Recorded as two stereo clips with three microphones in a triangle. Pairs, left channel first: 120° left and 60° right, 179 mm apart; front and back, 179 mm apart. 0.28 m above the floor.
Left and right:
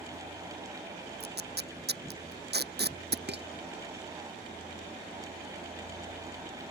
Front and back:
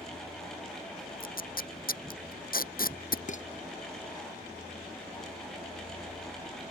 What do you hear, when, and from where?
1.2 s tape being pulled: 35° right
3.3 s dishes clattering: 45° right